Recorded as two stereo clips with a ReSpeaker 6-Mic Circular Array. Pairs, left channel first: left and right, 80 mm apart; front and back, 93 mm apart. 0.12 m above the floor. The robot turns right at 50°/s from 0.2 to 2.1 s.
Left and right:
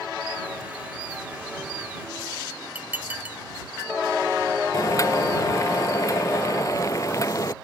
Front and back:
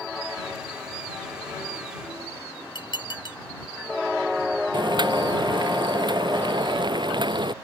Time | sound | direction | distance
2.8 | dishes clattering | 25° right | ?
4.7 | boiling | 140° left | ?